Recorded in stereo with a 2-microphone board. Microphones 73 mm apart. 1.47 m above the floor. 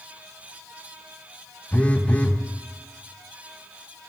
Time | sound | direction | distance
1.7 | a phone buzzing | 20° left (ahead or behind) | 0.7 m